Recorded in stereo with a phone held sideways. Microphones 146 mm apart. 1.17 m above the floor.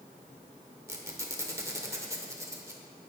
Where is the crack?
No crack in this recording.